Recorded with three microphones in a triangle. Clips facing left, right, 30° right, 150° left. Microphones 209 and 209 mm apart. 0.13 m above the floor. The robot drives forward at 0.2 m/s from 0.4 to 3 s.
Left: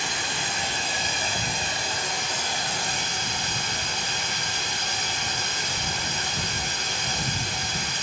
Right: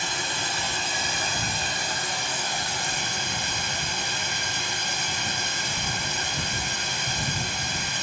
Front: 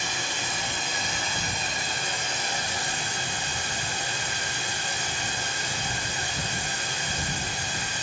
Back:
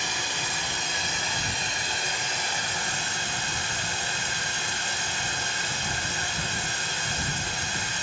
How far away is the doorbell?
I don't hear a doorbell.